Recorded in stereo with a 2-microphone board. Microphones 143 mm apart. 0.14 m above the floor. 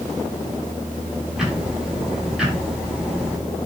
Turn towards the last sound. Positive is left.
turn(degrees=-5)  # may be behind; listen again after turning